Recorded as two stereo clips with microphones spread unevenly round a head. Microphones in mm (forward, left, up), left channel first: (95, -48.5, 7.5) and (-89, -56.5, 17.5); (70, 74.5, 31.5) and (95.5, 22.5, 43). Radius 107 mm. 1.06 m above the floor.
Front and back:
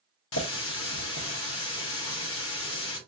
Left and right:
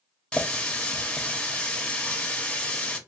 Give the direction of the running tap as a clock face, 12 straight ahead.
11 o'clock.